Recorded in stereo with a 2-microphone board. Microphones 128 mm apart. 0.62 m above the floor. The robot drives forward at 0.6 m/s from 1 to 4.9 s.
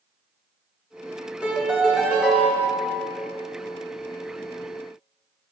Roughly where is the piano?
Centre.